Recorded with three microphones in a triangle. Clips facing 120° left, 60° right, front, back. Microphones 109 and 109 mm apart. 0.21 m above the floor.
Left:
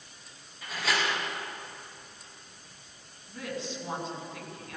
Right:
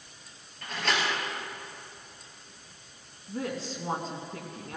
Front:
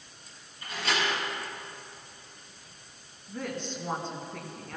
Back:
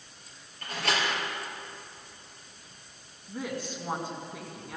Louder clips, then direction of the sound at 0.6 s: Right 1 dB, even; 155° right.